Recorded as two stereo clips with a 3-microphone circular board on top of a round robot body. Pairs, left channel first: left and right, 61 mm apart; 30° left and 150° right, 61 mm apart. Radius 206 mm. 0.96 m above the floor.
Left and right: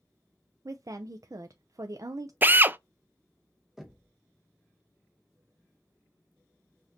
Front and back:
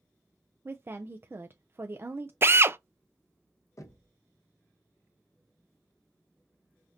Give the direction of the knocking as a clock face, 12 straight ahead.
12 o'clock.